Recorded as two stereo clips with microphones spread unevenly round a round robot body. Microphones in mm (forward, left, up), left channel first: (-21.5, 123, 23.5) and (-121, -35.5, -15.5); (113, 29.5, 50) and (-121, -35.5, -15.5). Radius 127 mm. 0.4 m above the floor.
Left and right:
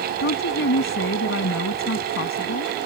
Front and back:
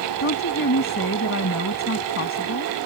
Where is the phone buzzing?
No phone buzzing in this recording.